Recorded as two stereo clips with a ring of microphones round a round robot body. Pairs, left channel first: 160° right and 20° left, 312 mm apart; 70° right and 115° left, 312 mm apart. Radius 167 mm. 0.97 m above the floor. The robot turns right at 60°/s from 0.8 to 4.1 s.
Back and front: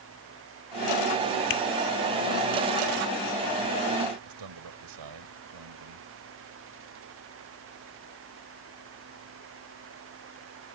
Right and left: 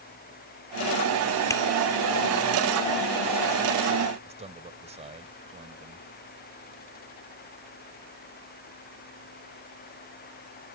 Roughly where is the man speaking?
Ahead left.